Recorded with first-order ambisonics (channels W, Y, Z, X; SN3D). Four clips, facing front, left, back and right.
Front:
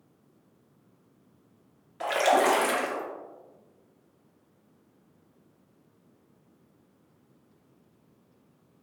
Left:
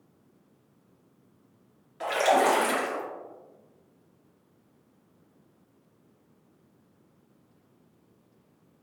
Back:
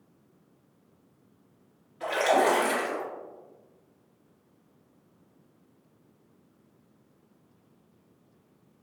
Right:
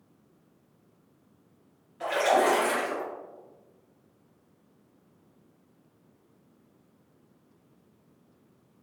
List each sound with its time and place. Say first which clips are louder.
2.0 s a splash: left 1 dB, front 1 dB; 20° left, 1.4 m